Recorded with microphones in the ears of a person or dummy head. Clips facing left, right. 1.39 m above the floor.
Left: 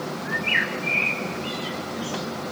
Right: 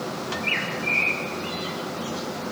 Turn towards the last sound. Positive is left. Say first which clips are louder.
# even
turn(degrees=20)  # may be behind; listen again after turning